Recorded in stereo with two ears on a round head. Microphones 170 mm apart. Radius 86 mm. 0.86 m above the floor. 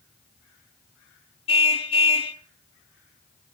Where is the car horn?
30° left (ahead or behind), 3 m.